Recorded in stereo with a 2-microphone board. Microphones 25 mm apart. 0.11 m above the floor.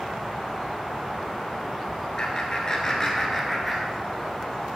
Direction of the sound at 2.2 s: 35° left (ahead or behind).